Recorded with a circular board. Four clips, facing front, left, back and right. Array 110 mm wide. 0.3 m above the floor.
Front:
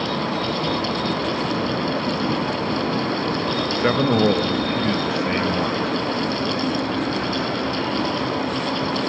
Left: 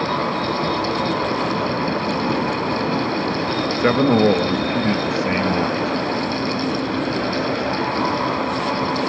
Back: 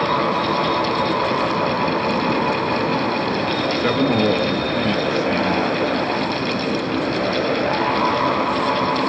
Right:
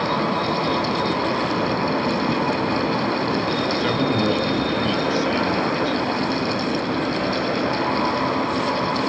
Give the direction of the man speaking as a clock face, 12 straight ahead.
10 o'clock.